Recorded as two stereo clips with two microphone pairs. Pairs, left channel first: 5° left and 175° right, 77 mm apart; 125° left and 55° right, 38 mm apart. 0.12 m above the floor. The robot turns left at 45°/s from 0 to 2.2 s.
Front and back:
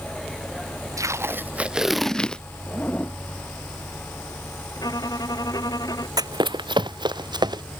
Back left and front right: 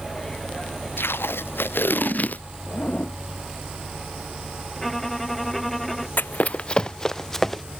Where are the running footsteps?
155° left; by 7.6 s 150° right.